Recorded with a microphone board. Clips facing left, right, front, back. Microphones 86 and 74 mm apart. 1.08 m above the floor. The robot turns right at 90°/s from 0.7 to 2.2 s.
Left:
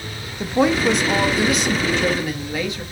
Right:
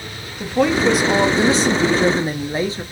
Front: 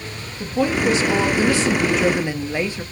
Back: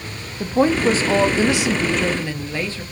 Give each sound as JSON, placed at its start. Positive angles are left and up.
{"t": 0.4, "sound": "a woman speaking", "azimuth_deg": 165, "distance_m": 0.5}